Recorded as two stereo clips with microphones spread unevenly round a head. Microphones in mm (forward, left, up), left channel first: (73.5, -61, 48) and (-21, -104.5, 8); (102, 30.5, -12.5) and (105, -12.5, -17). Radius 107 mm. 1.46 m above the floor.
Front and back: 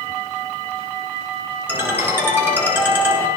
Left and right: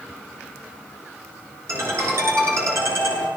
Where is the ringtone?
80° right, 7.5 m.